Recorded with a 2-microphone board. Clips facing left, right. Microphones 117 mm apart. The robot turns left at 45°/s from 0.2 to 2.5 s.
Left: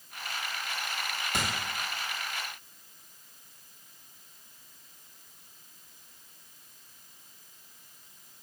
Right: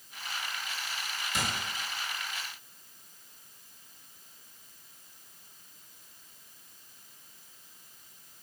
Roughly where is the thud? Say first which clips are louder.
Left 1 dB; left.